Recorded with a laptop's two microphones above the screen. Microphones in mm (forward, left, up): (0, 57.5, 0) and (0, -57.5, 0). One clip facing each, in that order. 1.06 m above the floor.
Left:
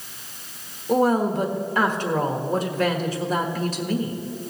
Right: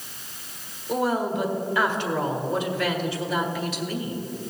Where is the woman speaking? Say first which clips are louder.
Left 5 dB; 40° left (ahead or behind), 1.4 m.